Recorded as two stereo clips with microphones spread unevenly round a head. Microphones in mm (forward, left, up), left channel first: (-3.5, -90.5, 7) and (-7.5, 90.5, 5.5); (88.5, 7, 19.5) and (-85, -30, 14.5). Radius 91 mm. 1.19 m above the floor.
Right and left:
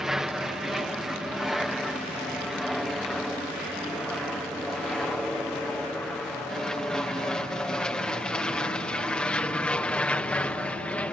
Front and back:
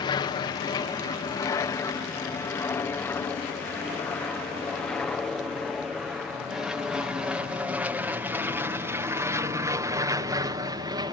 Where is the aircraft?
5° left; by 11.1 s 160° right.